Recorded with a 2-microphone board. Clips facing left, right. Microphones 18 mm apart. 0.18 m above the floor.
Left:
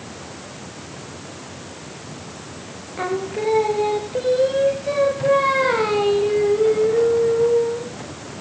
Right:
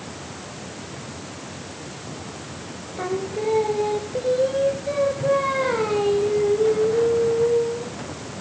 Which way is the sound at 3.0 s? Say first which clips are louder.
Left 2 dB; 20° left (ahead or behind).